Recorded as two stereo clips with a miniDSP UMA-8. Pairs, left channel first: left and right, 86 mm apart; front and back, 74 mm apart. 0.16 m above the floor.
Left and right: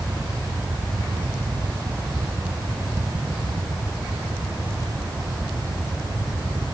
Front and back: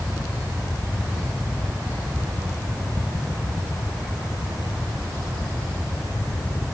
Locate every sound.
Only background noise.